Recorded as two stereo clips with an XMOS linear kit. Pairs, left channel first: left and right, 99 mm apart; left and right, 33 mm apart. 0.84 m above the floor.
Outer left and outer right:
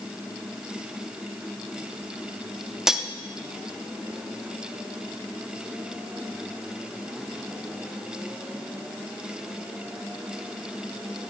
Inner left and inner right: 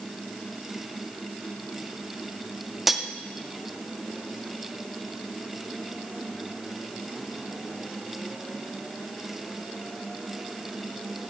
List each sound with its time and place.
2.9 s cutlery clinking: 5° right (ahead or behind), 0.6 m